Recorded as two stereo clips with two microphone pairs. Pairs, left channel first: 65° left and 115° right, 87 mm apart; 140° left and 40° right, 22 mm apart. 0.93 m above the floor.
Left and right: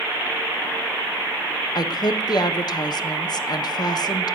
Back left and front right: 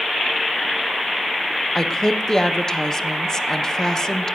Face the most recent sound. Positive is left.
turn(degrees=80)